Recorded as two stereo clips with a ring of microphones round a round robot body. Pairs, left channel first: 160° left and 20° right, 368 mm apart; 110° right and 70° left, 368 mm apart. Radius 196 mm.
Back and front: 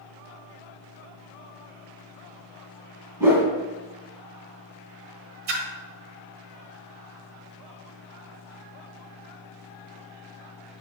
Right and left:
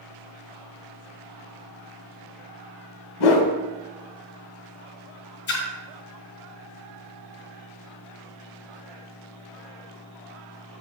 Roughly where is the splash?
Ahead right.